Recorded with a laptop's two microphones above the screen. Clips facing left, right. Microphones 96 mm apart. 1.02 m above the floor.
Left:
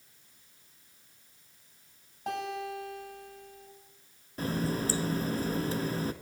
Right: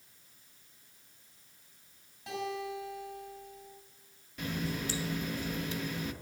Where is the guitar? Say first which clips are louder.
Left 2 dB; 55° left (ahead or behind), 6 m.